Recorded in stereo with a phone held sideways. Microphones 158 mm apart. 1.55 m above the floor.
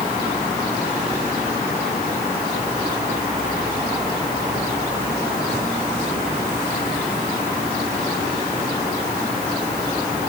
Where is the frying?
I don't hear frying.